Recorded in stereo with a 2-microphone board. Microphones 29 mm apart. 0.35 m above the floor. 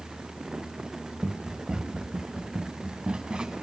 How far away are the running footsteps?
About 2.5 m.